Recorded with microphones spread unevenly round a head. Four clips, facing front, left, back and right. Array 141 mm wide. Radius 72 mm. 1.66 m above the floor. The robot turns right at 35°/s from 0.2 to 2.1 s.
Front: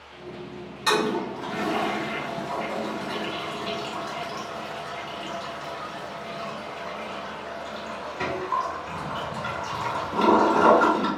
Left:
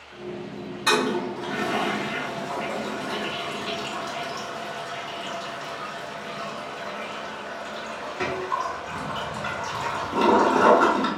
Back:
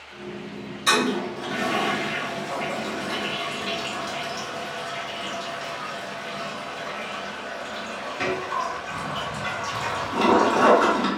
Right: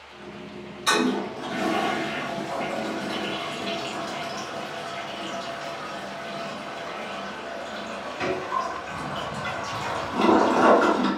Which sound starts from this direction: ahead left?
A toilet flushing, at 0.9 s.